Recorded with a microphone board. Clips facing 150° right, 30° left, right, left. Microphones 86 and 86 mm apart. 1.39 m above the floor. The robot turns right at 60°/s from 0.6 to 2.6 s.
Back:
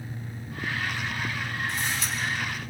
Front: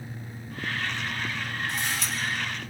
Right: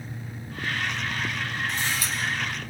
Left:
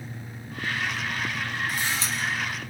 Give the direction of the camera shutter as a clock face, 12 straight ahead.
12 o'clock.